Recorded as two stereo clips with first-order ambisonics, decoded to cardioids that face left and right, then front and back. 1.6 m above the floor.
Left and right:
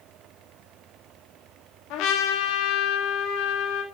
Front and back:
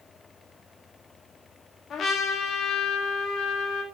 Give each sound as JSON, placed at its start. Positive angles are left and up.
{"t": 1.9, "sound": "a trumpet", "azimuth_deg": 60, "distance_m": 2.5}